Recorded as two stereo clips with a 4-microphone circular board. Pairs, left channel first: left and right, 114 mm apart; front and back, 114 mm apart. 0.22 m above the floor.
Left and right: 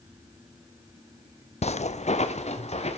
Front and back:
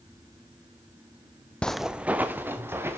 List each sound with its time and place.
1.6 s footsteps: 80° left, 0.5 m; by 3.0 s 110° left, 2.5 m